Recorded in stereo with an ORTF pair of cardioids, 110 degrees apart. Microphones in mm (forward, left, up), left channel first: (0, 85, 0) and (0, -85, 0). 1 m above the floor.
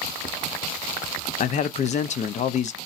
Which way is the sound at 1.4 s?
45° left.